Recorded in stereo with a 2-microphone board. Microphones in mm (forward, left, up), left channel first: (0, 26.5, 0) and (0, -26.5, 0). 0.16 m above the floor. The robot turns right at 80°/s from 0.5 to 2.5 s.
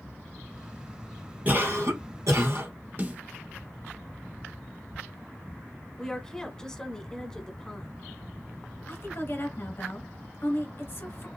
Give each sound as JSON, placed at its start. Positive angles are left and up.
{"t": 1.4, "sound": "a cough", "azimuth_deg": -150, "distance_m": 3.0}
{"t": 3.0, "sound": "a snare drum", "side_deg": -35, "distance_m": 1.4}
{"t": 6.0, "sound": "a woman speaking", "side_deg": 10, "distance_m": 1.0}
{"t": 8.9, "sound": "a woman speaking", "side_deg": 50, "distance_m": 1.7}